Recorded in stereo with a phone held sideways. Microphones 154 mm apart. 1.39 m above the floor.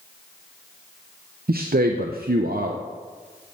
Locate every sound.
1.5 s a man speaking: 80° right, 0.7 m